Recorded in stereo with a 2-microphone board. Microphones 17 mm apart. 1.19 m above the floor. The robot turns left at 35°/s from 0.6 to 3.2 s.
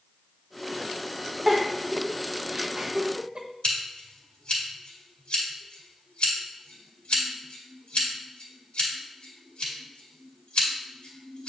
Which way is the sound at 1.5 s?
25° right (ahead or behind).